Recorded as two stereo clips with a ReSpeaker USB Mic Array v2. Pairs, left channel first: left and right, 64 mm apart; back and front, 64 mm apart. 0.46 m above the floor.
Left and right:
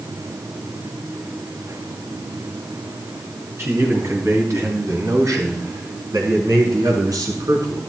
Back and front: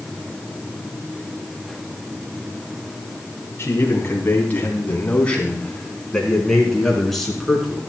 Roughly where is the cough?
I don't hear a cough.